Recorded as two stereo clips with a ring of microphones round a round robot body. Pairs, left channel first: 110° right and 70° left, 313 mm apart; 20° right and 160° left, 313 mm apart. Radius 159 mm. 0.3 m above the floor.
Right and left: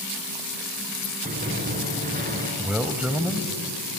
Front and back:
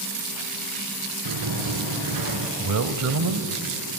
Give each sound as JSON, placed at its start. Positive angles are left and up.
{"t": 1.2, "sound": "a sliding door", "azimuth_deg": 135, "distance_m": 3.0}
{"t": 2.6, "sound": "a man speaking", "azimuth_deg": 155, "distance_m": 1.4}